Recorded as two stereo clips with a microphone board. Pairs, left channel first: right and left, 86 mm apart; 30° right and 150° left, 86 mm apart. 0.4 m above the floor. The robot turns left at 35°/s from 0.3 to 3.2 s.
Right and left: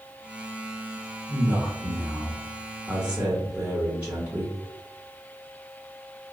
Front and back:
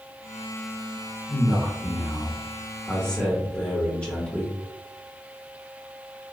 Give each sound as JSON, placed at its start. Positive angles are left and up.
{"t": 1.3, "sound": "a man speaking", "azimuth_deg": 100, "distance_m": 1.0}